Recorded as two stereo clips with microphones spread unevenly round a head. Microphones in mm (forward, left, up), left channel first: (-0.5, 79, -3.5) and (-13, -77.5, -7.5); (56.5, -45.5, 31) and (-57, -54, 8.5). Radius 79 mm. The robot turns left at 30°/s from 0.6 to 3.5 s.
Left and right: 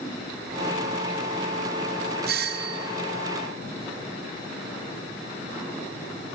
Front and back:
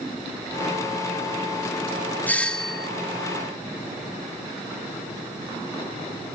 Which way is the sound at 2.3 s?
75° right.